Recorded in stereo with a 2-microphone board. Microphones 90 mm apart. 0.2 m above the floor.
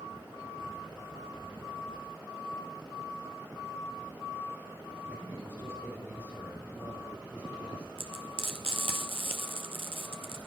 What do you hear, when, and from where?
5.1 s a man speaking: 25° right (ahead or behind), 6 m; by 7.9 s 15° right (ahead or behind), 5 m
8.0 s frying: 80° right, 1.2 m